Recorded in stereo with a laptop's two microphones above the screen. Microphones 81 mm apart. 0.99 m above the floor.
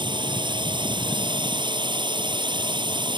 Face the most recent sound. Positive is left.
turn(degrees=-75)  # may be behind; listen again after turning